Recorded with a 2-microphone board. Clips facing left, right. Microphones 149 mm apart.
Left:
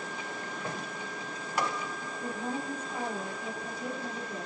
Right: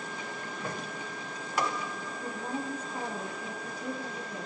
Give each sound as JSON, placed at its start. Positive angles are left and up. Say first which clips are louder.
{"t": 2.2, "sound": "a woman speaking", "louder": "left 1 dB", "side_deg": 45, "distance_m": 3.0}